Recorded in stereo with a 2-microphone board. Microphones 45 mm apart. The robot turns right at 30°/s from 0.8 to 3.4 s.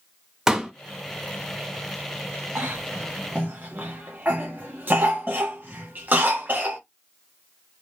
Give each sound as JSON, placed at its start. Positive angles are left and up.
{"t": 0.5, "sound": "a pop", "side_deg": -10, "distance_m": 0.8}
{"t": 2.5, "sound": "a cough", "side_deg": -45, "distance_m": 0.6}